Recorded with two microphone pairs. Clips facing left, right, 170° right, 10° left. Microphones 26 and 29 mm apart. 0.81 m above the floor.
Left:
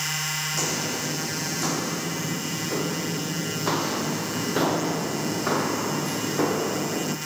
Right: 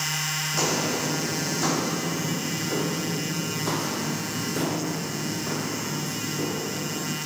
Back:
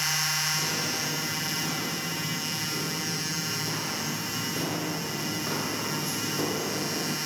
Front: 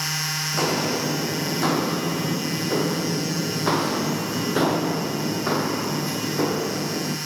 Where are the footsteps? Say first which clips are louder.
Right 2 dB, front 6 dB; 20° right, 2.5 m; by 7.2 s 80° left, 2 m.